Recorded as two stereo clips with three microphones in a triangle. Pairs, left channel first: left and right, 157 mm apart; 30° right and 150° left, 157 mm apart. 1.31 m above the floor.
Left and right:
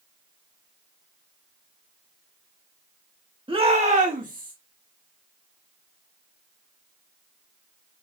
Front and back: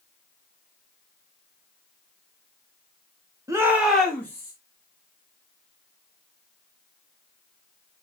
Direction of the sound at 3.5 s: 140° right.